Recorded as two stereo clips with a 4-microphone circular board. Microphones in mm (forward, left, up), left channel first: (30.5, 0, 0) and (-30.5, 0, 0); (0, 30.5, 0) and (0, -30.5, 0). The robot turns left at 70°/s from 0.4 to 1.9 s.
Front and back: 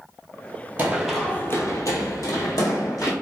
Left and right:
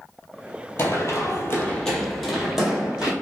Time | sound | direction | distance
0.8 | running footsteps | 125° left | 0.8 m